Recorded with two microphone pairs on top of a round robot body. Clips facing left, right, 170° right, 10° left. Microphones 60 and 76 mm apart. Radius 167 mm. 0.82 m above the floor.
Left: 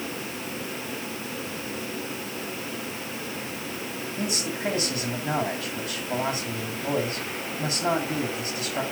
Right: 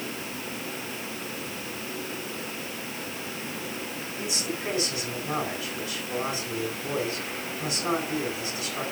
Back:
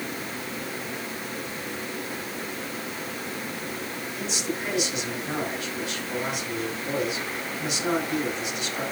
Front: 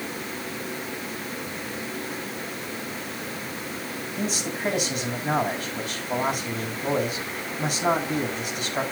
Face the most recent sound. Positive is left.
turn(degrees=45)